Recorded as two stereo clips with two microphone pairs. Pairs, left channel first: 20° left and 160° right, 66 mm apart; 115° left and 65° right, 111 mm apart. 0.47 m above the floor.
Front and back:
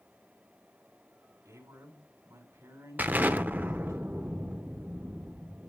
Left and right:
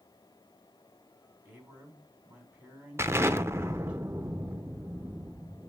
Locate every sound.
1.4 s a man speaking: 140° right, 4 m
3.0 s an explosion: 110° right, 0.7 m